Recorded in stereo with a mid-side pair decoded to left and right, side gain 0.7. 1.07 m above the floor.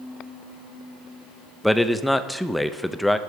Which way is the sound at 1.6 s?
5° left.